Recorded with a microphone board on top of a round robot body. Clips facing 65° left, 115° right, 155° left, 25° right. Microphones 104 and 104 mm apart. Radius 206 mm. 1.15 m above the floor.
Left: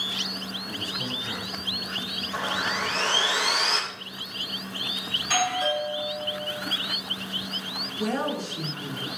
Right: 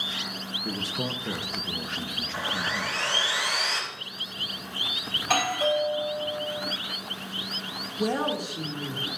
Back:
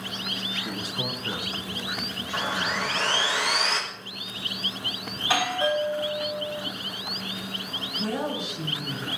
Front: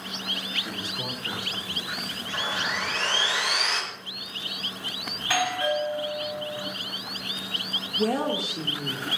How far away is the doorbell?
About 5 m.